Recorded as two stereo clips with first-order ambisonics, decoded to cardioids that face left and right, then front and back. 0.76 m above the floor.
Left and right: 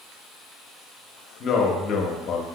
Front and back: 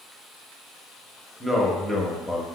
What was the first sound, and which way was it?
A man speaking, 85° left.